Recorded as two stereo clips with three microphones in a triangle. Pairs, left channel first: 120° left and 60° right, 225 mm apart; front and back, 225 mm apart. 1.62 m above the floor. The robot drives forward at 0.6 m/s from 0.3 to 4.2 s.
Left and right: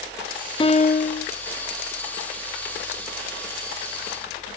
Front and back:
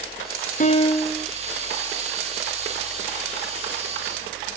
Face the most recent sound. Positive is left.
turn(degrees=165)